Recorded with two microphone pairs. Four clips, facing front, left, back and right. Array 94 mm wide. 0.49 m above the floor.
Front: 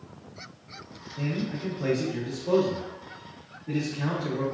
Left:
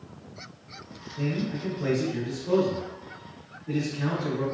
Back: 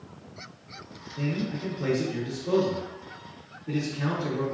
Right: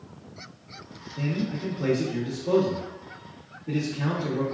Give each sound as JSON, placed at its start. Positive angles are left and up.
{"t": 1.2, "sound": "a man speaking", "azimuth_deg": -100, "distance_m": 0.8}